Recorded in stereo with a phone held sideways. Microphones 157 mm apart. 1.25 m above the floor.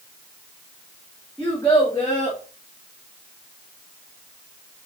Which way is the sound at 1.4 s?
15° left (ahead or behind).